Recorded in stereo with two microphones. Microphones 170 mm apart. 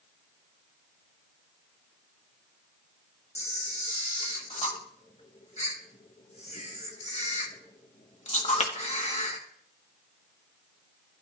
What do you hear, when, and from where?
3.4 s a camera shutter: 40° left (ahead or behind), 1.3 m